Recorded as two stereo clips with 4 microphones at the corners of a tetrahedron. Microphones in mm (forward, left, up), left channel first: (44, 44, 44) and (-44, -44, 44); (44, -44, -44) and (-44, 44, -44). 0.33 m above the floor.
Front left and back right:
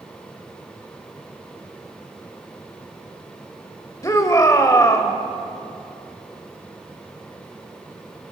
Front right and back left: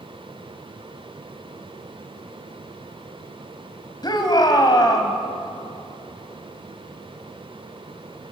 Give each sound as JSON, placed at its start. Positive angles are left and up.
{"t": 4.0, "sound": "a shout", "azimuth_deg": -10, "distance_m": 1.7}